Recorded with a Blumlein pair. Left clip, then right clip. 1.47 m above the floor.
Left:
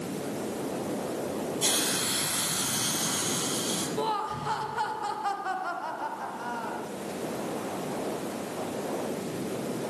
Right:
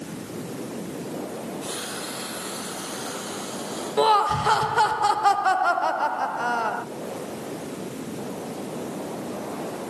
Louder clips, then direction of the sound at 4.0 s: Right 15 dB; 60° right.